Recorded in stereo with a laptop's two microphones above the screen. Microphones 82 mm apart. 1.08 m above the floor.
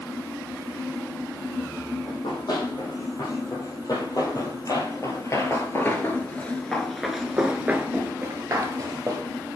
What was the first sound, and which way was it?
A fan, 40° left (ahead or behind).